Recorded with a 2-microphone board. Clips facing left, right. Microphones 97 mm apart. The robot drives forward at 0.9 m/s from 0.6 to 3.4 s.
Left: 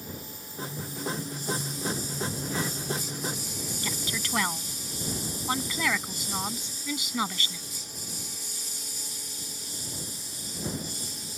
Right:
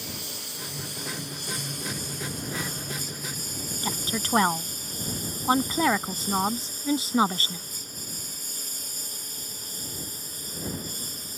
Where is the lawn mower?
70° right (ahead or behind); by 11.4 s 45° right (ahead or behind).